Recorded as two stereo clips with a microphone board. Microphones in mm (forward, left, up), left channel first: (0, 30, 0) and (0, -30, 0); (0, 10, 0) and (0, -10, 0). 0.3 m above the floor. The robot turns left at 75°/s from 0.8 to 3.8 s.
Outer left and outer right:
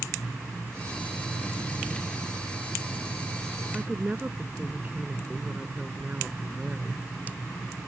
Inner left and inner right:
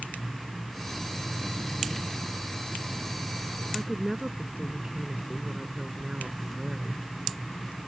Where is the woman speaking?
35° right (ahead or behind); by 7.0 s 30° right (ahead or behind).